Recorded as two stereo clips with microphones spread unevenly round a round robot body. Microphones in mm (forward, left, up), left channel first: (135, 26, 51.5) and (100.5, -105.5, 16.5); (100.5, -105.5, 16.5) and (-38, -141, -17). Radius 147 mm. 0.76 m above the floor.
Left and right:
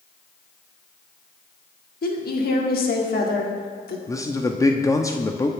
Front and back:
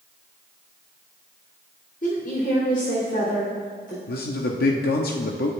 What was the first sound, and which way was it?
A woman speaking, 75° left.